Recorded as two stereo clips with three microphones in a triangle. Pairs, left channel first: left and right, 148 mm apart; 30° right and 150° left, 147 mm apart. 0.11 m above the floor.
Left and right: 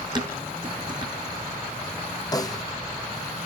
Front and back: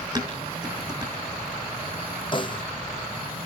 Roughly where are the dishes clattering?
Behind right.